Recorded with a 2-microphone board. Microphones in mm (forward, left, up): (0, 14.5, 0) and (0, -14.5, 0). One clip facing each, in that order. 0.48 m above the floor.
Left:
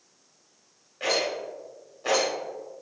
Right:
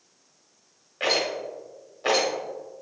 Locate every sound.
1.0 s a rattle: 40° right (ahead or behind), 1.0 m